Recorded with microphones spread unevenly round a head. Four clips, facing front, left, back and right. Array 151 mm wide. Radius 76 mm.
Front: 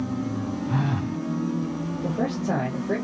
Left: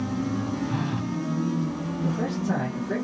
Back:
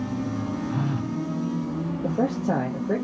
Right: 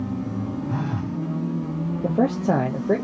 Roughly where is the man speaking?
Right.